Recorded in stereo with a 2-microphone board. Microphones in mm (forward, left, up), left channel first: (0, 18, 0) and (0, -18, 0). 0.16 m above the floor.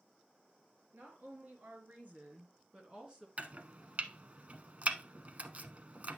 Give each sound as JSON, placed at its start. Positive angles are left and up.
{"t": 0.9, "sound": "a woman speaking", "side_deg": -65, "distance_m": 3.5}
{"t": 3.4, "sound": "chopping", "side_deg": -45, "distance_m": 0.7}